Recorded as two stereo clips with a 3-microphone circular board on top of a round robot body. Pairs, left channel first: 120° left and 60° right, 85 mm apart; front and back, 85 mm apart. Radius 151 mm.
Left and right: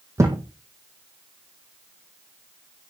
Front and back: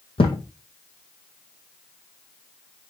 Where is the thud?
5° right, 1.7 m.